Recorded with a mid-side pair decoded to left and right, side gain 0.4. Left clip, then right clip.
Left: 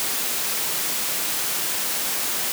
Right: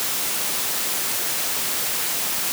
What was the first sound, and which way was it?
Only background noise.